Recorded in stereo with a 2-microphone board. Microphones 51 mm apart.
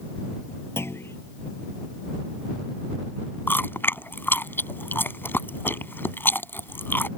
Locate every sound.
0.8 s a clunk: 60° left (ahead or behind)
3.5 s chewing: 45° left (ahead or behind)